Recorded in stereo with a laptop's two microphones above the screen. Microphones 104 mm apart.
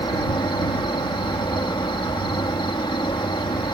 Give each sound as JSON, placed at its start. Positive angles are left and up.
{"t": 0.0, "sound": "an insect", "side_deg": 50}